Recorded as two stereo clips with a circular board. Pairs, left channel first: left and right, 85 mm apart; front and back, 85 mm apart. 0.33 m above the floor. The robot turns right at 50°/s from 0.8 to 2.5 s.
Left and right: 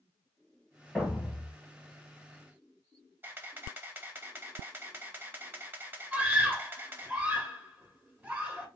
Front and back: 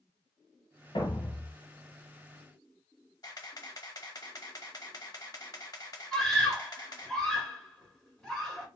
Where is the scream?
65° right, 0.9 m.